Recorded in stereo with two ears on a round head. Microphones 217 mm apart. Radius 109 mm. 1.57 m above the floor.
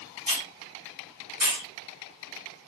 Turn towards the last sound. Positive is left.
turn(degrees=25)  # may be behind; listen again after turning